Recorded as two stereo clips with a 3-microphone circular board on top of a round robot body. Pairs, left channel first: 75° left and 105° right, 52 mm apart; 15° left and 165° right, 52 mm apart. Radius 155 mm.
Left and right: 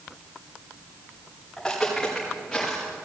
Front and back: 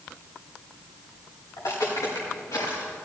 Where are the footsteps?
5° right, 6 m; by 2.9 s 15° right, 5.5 m.